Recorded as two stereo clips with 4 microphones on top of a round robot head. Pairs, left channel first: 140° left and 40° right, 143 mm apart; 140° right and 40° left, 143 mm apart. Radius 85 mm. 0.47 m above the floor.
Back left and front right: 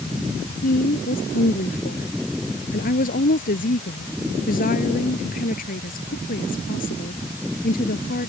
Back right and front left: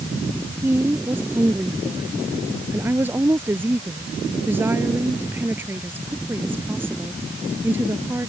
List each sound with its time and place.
0.6 s a woman speaking: 115° left